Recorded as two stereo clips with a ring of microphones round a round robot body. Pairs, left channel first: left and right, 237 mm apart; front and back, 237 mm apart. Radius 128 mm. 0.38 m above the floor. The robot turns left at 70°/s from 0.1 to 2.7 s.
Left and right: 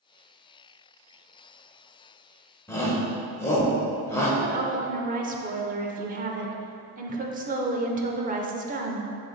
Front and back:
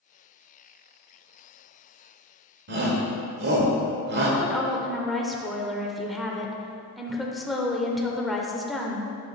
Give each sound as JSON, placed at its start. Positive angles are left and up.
{"t": 2.7, "sound": "a shout", "azimuth_deg": 165, "distance_m": 1.3}
{"t": 4.4, "sound": "a woman speaking", "azimuth_deg": -90, "distance_m": 0.9}